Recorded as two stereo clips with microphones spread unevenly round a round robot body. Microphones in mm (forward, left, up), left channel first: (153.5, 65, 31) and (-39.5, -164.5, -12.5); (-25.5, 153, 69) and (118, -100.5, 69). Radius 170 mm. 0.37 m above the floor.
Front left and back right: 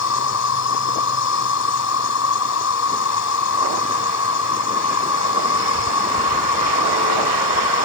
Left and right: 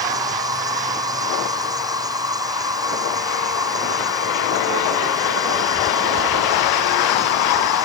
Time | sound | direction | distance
0.0 | an insect | 15° left | ?